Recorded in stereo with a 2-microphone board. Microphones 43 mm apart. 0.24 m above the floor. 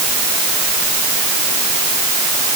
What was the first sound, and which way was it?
Only background noise.